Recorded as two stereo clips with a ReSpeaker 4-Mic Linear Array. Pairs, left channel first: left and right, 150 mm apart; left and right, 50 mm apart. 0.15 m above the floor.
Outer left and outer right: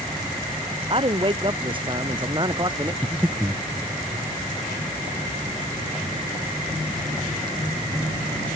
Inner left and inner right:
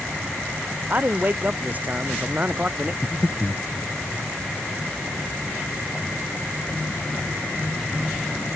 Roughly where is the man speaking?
Right.